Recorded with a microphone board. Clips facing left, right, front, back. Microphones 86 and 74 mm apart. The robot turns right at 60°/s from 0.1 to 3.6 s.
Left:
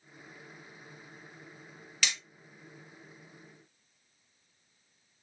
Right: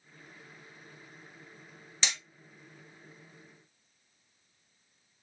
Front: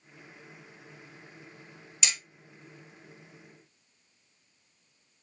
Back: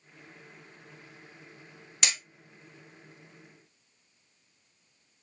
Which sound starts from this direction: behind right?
Hammering, at 2.0 s.